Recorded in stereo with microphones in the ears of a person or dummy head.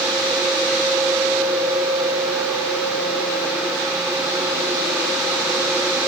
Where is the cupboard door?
I don't hear a cupboard door.